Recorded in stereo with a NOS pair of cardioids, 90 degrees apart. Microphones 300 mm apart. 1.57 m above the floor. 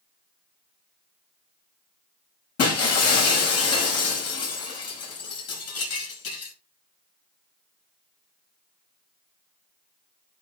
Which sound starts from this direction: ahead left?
Breaking glass, at 2.6 s.